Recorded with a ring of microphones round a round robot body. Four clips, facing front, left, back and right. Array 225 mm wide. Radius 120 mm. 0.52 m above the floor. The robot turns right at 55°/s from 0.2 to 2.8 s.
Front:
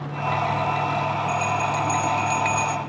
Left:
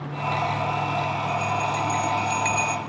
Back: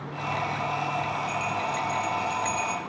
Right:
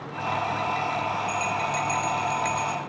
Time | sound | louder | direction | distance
1.3 | a bell | left 2 dB, front 5 dB | 55° right | 2.5 m